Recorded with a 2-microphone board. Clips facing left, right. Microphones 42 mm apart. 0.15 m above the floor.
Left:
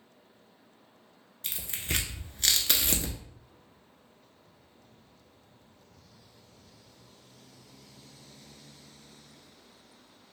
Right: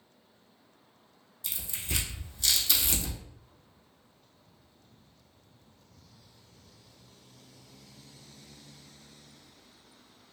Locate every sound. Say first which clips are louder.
1.4 s tearing paper: left 3 dB; 60° left (ahead or behind), 0.6 m